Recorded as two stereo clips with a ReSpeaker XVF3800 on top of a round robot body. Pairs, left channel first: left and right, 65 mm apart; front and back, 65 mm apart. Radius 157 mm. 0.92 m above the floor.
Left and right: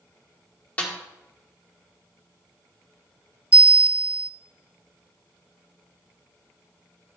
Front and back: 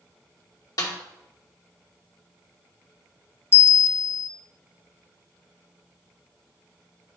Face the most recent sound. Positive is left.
turn(degrees=-25)